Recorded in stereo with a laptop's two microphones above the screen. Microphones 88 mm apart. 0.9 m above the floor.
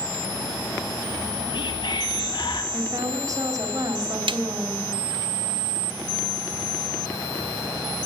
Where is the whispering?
60° left (ahead or behind), 1.1 m.